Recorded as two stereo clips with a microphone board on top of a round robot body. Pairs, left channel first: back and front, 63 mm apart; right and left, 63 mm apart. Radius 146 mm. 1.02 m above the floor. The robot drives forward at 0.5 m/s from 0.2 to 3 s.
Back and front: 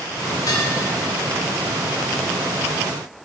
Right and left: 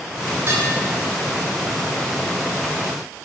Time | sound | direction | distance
0.5 | dishes clattering | 145° left | 2.5 m